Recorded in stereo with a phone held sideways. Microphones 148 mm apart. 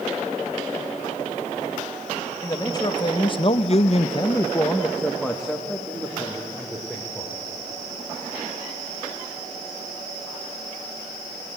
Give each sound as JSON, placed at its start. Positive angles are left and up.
{"t": 2.4, "sound": "a man speaking", "side_deg": 25, "distance_m": 1.6}